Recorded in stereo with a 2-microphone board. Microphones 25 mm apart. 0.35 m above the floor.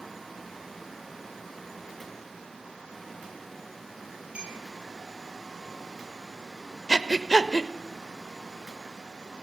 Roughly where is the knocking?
I don't hear knocking.